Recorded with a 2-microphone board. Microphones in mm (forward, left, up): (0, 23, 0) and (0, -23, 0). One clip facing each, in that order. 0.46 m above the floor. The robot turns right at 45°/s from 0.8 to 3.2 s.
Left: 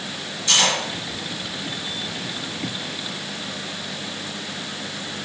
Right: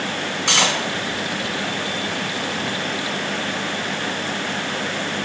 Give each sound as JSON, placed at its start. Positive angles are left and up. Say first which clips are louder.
{"t": 0.5, "sound": "cutlery clinking", "louder": "right 1 dB", "side_deg": -75, "distance_m": 2.0}